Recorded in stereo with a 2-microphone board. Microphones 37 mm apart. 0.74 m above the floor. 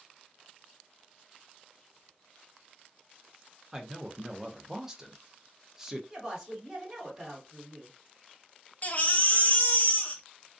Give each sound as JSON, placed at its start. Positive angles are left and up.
{"t": 3.7, "sound": "a man speaking", "side_deg": -15, "distance_m": 0.5}
{"t": 6.1, "sound": "a woman speaking", "side_deg": -20, "distance_m": 1.8}
{"t": 8.8, "sound": "a baby crying", "side_deg": 45, "distance_m": 0.6}